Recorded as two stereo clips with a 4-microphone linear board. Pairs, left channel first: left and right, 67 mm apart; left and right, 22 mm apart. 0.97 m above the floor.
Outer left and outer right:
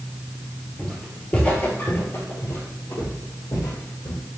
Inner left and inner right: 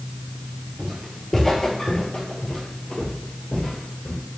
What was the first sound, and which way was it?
Footsteps, 5° left (ahead or behind).